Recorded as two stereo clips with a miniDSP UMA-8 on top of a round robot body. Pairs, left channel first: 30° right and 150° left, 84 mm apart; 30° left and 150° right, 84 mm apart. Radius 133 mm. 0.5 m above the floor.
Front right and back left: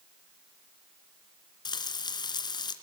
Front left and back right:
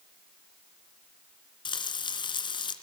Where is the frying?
5° left, 2.5 m.